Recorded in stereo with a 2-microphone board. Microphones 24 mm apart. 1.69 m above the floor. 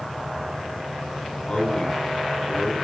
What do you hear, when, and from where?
1.4 s a man speaking: 35° left (ahead or behind), 8 m